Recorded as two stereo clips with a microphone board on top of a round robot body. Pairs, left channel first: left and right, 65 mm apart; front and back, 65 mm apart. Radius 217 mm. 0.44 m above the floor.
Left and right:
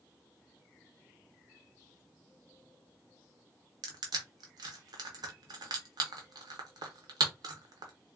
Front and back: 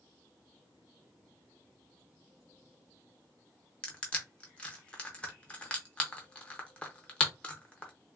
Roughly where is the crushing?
Right.